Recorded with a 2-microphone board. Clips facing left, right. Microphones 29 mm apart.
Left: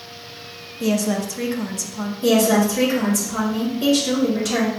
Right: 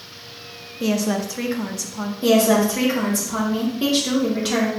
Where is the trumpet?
No trumpet in this recording.